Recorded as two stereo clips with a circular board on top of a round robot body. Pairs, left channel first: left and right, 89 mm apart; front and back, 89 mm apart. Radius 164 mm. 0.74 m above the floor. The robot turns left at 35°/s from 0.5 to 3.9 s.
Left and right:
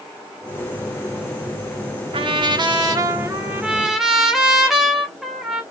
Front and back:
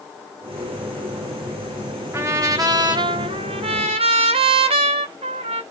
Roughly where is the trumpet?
Behind right.